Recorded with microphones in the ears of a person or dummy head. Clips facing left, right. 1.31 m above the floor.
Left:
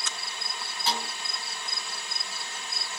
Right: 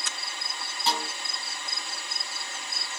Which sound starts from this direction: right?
A snare drum, at 0.9 s.